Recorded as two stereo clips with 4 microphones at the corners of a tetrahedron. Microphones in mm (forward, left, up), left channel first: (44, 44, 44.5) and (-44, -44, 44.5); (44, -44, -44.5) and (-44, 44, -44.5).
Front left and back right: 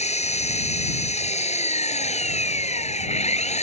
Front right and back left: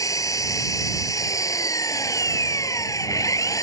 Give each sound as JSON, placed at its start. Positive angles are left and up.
{"t": 0.0, "sound": "an engine running", "azimuth_deg": 20}